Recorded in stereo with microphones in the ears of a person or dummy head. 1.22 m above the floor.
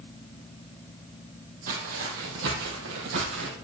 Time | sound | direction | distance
1.7 | footsteps | 45° right (ahead or behind) | 2.5 m